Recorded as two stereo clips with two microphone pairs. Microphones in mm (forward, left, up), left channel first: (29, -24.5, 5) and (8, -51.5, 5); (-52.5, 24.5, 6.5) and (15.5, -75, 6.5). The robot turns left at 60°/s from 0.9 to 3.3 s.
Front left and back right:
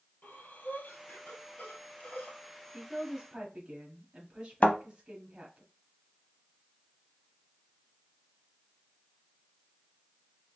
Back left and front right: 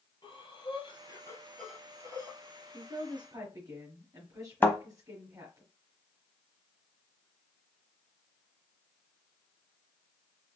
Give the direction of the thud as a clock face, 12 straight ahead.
10 o'clock.